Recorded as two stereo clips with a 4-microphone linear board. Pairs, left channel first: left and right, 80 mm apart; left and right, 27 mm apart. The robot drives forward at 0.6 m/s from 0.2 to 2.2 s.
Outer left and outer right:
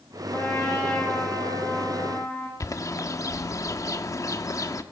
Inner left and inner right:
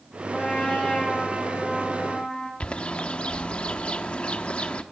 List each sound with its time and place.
0.3 s a trumpet: 20° left (ahead or behind), 10 m
2.6 s a bird: 40° left (ahead or behind), 0.8 m